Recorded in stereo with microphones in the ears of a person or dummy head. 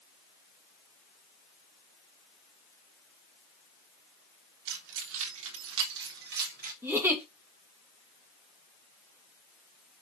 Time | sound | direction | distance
4.7 | keys jangling | 70° right (ahead or behind) | 2.5 m
6.8 | a giggle | 5° right (ahead or behind) | 1.7 m